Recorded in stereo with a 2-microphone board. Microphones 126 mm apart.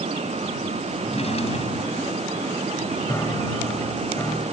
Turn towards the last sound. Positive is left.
turn(degrees=25)  # may be behind; listen again after turning